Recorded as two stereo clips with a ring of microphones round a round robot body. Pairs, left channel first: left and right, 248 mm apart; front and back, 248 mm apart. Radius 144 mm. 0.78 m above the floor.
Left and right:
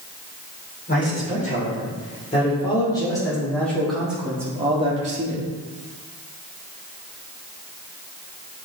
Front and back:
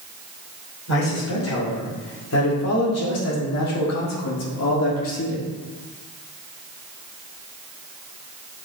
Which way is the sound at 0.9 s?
30° left.